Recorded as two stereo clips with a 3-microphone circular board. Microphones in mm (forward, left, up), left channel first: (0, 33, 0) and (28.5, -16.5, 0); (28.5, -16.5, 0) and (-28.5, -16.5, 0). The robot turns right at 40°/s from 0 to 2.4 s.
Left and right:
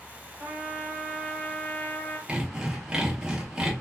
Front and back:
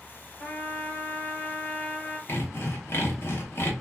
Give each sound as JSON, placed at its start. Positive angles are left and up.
{"t": 0.4, "sound": "a trumpet", "azimuth_deg": -5, "distance_m": 1.5}
{"t": 2.3, "sound": "sawing", "azimuth_deg": 5, "distance_m": 0.7}